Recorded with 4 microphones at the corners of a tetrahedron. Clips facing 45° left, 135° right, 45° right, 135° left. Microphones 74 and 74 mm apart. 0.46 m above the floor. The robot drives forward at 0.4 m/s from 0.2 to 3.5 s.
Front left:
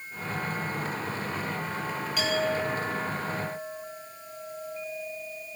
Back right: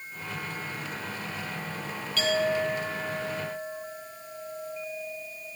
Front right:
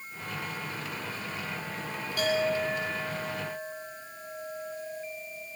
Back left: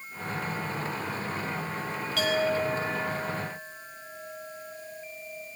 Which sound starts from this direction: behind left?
A clink, at 2.2 s.